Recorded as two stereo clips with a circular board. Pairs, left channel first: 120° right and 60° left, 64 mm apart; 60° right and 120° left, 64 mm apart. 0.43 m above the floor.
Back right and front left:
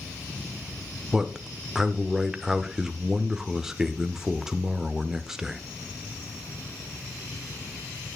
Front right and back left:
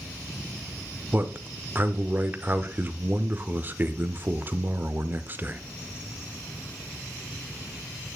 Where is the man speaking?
135° left, 0.9 m.